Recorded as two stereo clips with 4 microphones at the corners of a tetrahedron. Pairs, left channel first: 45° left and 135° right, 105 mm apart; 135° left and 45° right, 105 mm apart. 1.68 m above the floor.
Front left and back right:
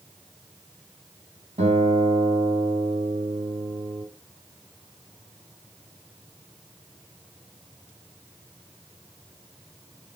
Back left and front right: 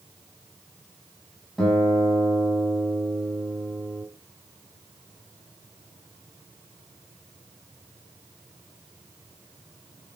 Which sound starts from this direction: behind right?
A guitar, at 1.6 s.